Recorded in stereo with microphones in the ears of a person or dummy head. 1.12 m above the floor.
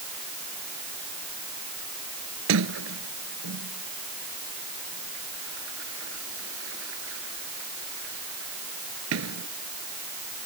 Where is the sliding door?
80° right.